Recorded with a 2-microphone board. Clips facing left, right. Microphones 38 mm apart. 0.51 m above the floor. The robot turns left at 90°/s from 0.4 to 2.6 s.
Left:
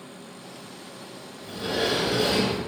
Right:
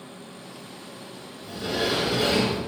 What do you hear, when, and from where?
1.4 s a sliding door: 30° left, 1.3 m; by 2.6 s 75° right, 1.3 m